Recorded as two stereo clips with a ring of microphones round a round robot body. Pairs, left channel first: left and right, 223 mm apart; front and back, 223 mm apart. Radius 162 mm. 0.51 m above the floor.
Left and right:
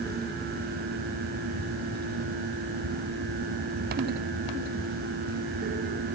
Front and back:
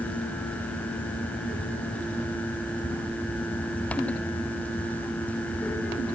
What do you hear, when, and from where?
Only background noise.